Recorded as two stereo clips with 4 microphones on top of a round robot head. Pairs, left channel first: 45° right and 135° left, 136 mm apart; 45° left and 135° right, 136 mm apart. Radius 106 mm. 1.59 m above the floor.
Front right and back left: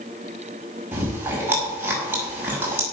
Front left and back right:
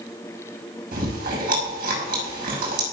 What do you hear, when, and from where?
0.9 s chewing: 150° right, 6 m